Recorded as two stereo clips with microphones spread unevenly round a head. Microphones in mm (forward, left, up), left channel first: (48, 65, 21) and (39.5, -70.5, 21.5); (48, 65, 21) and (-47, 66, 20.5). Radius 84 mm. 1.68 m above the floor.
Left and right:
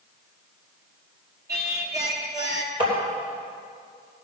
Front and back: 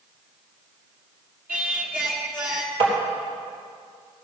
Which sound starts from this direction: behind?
Tapping, at 2.8 s.